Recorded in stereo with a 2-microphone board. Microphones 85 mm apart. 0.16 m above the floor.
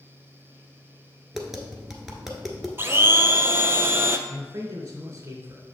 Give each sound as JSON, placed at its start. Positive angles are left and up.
{"t": 1.3, "sound": "tapping", "side_deg": -5, "distance_m": 1.3}
{"t": 2.8, "sound": "a blender", "side_deg": -30, "distance_m": 0.6}
{"t": 4.3, "sound": "a man speaking", "side_deg": -35, "distance_m": 2.0}